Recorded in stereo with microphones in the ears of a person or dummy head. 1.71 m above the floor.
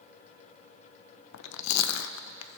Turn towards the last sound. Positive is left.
turn(degrees=75)  # may be behind; listen again after turning